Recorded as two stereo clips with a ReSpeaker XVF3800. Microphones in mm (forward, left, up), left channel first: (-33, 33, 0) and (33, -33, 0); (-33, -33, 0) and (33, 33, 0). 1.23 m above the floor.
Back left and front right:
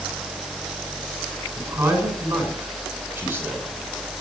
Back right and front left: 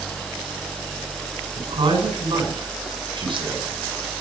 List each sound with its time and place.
1.6 s a man speaking: 25° left, 6.5 m